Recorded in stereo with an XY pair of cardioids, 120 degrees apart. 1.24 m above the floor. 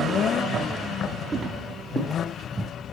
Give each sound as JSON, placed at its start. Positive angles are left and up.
{"t": 1.3, "sound": "footsteps", "azimuth_deg": -35, "distance_m": 6.5}